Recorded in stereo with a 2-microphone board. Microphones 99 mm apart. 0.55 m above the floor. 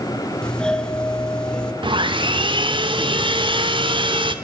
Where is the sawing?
55° right (ahead or behind), 1.4 m.